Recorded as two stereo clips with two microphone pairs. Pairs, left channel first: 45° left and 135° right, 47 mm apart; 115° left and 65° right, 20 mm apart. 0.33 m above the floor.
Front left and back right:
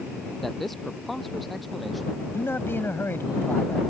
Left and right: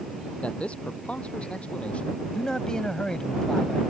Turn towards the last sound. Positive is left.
turn(degrees=65)